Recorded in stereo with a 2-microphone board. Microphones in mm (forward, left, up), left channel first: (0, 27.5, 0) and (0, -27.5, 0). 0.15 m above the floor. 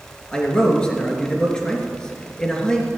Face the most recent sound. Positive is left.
turn(degrees=15)  # may be behind; listen again after turning